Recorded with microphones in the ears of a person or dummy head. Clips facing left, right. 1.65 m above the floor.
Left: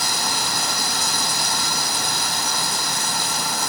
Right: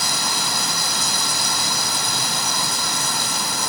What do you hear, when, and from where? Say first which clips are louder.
0.0 s running water: even; 70° right (ahead or behind)